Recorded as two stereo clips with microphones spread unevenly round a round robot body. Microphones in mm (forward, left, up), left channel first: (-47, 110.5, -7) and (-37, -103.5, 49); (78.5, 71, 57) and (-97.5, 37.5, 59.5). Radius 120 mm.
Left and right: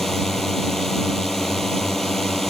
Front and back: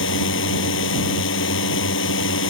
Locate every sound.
0.0 s a drone: 5° left